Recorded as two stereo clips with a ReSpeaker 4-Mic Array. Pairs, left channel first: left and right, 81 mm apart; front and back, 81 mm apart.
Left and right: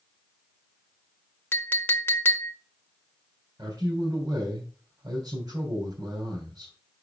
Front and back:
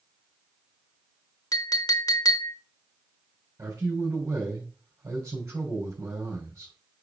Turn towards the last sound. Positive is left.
turn(degrees=-130)